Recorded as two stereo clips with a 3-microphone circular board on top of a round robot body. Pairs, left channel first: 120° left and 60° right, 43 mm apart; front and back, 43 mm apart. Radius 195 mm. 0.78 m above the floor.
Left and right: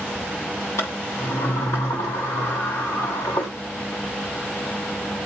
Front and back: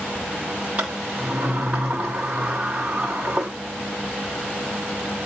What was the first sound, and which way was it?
A sliding door, 125° left.